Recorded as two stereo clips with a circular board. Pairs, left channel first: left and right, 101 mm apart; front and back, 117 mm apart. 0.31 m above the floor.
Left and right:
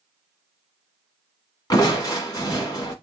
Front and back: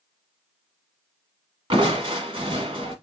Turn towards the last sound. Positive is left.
turn(degrees=140)